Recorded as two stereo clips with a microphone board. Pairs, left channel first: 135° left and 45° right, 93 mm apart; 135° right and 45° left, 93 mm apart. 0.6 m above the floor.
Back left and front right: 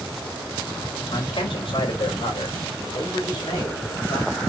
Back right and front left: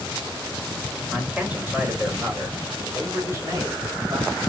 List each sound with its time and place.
1.1 s a man speaking: 120° left, 3 m; by 4.3 s 90° left, 3.5 m